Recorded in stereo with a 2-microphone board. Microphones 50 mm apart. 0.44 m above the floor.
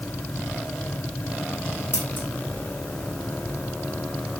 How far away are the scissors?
About 4 m.